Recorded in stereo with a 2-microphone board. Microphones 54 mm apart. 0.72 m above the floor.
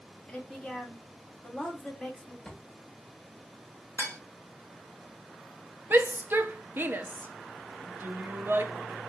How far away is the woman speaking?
About 1.6 m.